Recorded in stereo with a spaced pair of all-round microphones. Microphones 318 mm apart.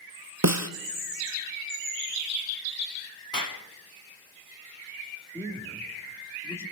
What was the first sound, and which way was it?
A snare drum, 55° right (ahead or behind).